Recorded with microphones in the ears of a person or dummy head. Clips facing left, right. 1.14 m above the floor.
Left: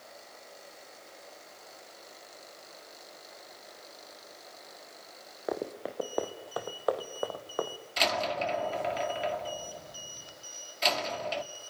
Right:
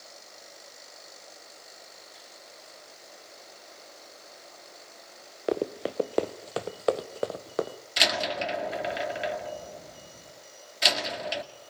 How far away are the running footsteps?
About 1.2 m.